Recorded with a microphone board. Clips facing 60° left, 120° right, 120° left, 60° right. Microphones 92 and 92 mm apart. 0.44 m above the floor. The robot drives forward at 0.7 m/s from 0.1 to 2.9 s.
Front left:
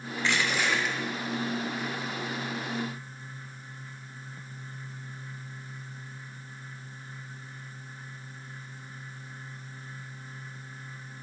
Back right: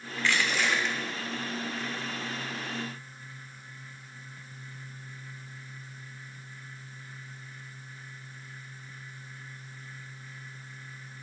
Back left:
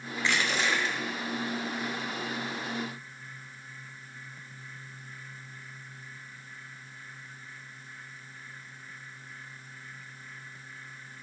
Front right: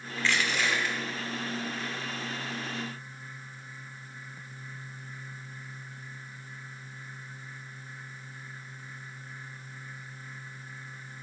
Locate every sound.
0.2 s crushing: 75° left, 1.2 m; by 1.0 s 135° left, 1.3 m